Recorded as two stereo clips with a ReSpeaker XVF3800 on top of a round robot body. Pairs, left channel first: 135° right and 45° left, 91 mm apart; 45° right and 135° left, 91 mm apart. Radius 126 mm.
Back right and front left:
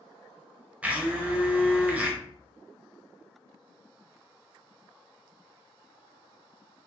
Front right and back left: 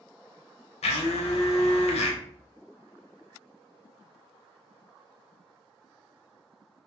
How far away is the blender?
About 0.5 m.